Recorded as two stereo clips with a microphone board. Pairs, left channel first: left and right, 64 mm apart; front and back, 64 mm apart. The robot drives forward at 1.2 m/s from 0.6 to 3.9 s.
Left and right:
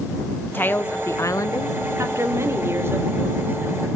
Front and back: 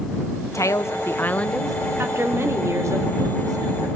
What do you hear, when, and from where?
0.5 s a woman speaking: 30° left, 1.6 m; by 1.8 s 95° left, 0.9 m
2.0 s a woman speaking: 130° right, 3.5 m; by 3.9 s 150° right, 5 m